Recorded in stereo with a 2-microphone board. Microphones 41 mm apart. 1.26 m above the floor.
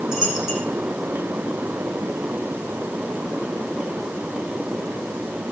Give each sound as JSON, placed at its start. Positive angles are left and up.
{"t": 0.1, "sound": "a dropped coin", "side_deg": -10, "distance_m": 8.5}